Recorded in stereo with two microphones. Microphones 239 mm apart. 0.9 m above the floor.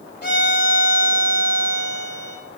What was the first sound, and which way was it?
A violin, 50° left (ahead or behind).